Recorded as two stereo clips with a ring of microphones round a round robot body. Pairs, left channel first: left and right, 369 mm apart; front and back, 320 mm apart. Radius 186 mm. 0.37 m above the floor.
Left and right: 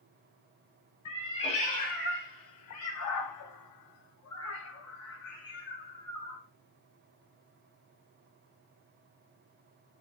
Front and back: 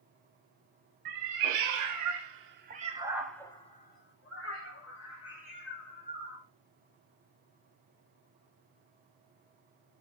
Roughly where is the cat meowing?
Behind.